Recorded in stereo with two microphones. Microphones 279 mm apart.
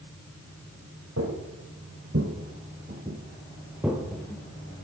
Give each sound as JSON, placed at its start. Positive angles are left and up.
{"t": 1.2, "sound": "footsteps", "side_deg": -60, "distance_m": 2.5}